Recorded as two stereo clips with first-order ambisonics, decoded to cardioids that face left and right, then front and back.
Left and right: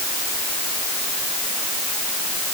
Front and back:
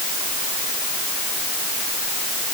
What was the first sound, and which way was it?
Only background noise.